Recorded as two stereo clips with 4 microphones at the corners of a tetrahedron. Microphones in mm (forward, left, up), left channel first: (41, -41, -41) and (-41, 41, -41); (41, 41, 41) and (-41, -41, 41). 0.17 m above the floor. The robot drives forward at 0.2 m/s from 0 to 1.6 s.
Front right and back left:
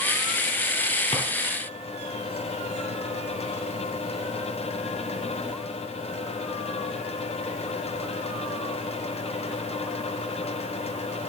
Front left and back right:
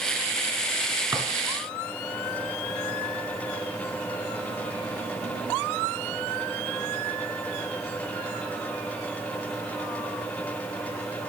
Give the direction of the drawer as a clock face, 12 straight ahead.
3 o'clock.